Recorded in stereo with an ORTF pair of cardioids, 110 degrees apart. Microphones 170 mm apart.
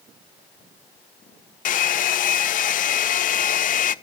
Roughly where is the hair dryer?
Ahead left.